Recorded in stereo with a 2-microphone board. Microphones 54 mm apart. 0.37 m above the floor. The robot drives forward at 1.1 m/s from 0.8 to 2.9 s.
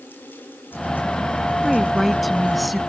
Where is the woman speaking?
Centre (ahead or behind).